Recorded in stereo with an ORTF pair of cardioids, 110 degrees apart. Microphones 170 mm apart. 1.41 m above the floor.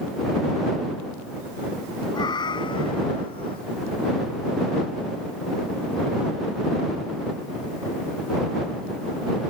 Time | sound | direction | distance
2.1 | a cat meowing | 25° left | ?